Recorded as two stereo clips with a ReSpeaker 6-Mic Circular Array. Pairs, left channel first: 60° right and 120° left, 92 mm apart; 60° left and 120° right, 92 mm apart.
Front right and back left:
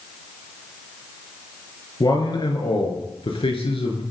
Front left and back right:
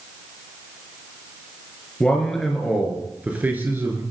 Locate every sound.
2.0 s a man speaking: 20° right, 4 m; by 4.0 s 60° right, 4 m